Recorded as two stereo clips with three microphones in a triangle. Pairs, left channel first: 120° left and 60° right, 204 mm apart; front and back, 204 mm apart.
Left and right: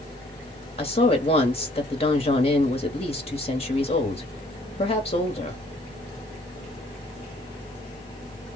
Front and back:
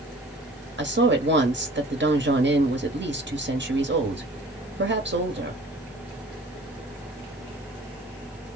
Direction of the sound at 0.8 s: Straight behind.